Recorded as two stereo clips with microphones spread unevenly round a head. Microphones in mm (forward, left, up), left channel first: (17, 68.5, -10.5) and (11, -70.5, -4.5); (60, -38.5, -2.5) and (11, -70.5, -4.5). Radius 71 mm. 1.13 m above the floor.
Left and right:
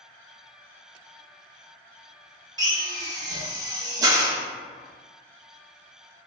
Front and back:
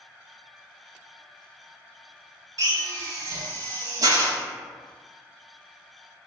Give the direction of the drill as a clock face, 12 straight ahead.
5 o'clock.